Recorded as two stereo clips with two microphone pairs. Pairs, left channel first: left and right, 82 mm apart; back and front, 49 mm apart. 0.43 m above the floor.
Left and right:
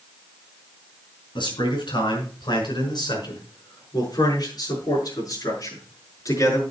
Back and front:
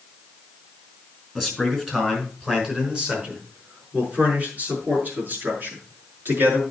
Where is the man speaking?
85° left, 5.5 m; by 6.6 s 45° left, 6.5 m.